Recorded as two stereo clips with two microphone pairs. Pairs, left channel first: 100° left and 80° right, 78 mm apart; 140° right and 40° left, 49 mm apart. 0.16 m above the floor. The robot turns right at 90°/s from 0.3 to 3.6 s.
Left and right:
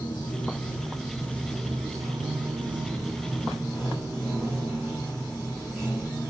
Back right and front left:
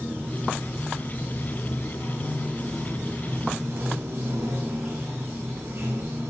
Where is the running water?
80° left, 6.5 m; by 6.3 s 20° left, 6.5 m.